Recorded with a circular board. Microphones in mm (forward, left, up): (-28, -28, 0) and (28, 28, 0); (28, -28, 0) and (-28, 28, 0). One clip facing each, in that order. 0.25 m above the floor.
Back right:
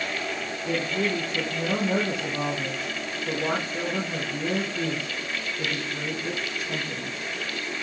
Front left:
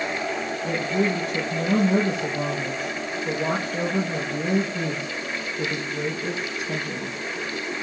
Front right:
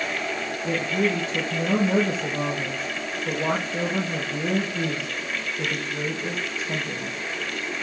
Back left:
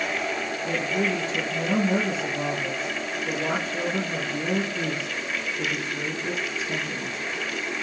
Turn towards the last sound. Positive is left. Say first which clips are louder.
# front left 2 dB, front right 2 dB
turn(degrees=30)